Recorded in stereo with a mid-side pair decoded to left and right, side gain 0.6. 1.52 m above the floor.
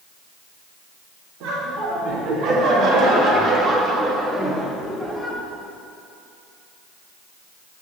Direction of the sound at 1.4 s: 65° right.